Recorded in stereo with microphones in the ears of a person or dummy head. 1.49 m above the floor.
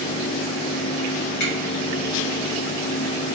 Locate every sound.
1.4 s a finger snap: 60° left (ahead or behind), 1.5 m